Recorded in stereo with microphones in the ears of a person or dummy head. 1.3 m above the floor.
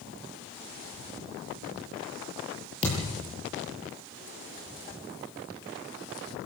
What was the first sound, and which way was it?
A thud, 30° left (ahead or behind).